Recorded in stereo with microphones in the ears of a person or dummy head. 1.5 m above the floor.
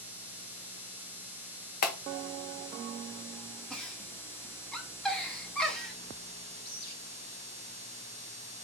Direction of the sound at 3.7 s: 5° left (ahead or behind).